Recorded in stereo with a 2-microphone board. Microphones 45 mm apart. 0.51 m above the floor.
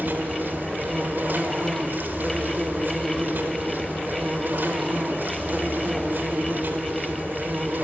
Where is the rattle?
No rattle in this recording.